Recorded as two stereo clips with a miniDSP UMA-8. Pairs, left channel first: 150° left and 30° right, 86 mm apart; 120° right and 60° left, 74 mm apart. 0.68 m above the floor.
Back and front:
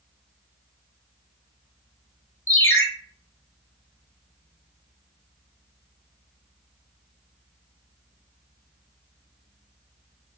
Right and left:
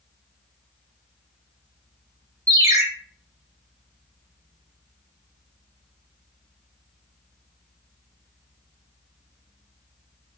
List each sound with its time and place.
2.5 s a ringtone: 95° left, 0.8 m